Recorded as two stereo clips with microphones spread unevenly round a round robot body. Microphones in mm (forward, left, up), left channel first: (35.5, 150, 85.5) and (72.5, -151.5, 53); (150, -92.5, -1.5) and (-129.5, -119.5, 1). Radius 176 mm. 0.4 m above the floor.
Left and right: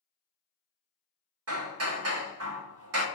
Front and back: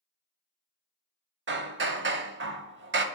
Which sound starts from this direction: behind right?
Hammering, at 1.5 s.